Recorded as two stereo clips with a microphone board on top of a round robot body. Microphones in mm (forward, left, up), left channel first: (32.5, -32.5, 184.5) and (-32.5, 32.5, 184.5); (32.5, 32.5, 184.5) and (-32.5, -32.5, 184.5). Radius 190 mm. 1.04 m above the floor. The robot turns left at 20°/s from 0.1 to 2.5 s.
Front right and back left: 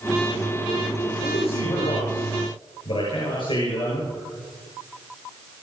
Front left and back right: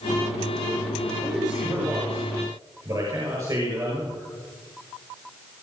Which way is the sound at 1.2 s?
60° right.